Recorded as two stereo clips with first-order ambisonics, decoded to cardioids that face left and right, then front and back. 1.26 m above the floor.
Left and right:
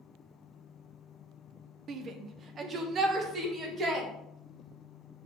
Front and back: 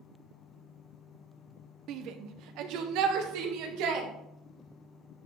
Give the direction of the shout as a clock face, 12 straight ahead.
5 o'clock.